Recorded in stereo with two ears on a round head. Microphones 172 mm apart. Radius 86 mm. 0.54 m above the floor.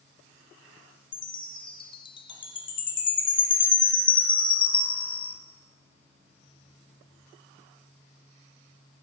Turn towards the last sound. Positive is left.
turn(degrees=25)  # may be behind; listen again after turning